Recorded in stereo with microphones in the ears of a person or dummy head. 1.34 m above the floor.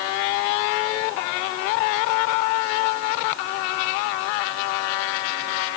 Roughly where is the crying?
I don't hear crying.